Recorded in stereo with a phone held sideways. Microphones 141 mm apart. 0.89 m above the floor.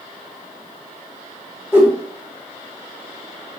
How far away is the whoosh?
About 1.1 m.